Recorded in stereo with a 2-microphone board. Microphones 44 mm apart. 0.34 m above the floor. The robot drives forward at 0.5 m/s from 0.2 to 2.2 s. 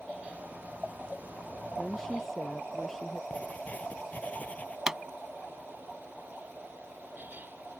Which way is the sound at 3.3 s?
30° left (ahead or behind).